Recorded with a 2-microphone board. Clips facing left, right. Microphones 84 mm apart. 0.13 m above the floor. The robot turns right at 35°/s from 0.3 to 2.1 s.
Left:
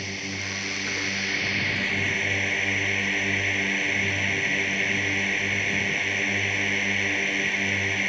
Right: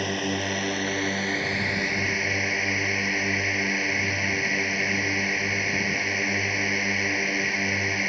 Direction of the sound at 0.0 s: 75° right.